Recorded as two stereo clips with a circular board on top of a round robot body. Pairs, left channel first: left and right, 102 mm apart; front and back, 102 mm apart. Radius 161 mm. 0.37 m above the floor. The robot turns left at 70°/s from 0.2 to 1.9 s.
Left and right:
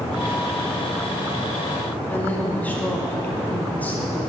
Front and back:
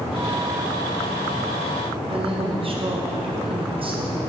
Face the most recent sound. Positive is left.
turn(degrees=160)